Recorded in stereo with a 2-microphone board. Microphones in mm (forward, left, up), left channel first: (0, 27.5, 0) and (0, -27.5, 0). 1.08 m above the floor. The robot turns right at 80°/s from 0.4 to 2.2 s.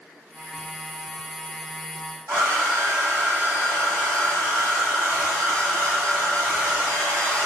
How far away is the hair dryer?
About 1.2 m.